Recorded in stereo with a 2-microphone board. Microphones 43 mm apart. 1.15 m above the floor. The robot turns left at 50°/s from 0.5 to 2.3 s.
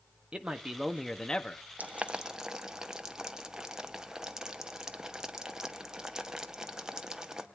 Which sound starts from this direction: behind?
A man speaking, at 0.3 s.